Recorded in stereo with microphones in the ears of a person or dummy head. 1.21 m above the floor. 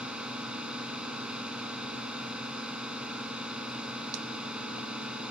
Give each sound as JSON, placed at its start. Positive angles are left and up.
{"t": 0.0, "sound": "a drone", "side_deg": -5}